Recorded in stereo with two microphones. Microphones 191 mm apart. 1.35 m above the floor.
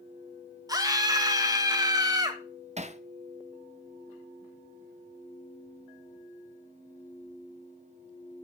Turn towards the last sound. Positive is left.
turn(degrees=-35)  # may be behind; listen again after turning